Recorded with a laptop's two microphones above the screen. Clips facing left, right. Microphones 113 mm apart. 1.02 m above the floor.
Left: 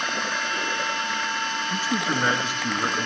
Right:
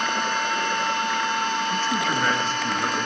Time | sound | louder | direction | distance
0.0 | a machine running | right 4 dB | 50° right (ahead or behind) | 5 m
1.7 | a man speaking | right 2 dB | 10° left (ahead or behind) | 1.4 m